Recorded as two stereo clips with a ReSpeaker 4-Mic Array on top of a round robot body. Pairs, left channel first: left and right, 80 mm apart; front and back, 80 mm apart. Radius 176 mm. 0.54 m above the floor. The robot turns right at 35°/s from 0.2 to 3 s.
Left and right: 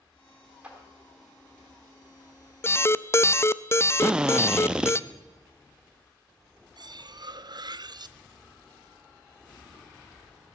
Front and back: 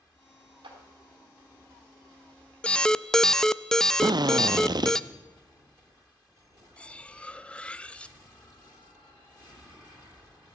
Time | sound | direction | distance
0.6 | a clap | 170° right | 3.5 m
2.6 | an alarm | 65° left | 0.5 m
4.0 | a drill | 170° right | 0.8 m
6.8 | cutlery clinking | 75° right | 0.6 m